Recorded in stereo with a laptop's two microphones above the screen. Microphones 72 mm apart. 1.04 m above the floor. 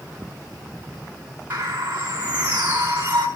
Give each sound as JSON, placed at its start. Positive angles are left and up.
{"t": 1.5, "sound": "a bird", "side_deg": -25, "distance_m": 5.0}